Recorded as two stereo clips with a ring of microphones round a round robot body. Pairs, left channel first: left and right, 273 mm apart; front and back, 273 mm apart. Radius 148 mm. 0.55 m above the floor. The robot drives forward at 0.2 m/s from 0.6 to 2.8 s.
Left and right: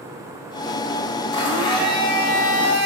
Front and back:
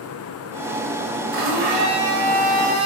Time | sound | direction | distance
1.3 | a blender | 160° left | 1.2 m